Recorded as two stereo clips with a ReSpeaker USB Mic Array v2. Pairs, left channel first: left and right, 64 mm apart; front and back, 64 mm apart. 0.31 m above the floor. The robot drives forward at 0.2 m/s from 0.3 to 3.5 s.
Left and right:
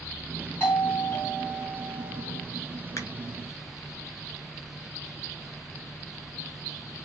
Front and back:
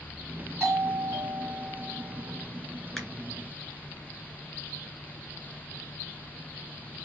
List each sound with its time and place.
0.6 s a doorbell: 135° left, 2.5 m; by 2.4 s 145° left, 3 m
3.0 s a finger snap: 90° left, 1.8 m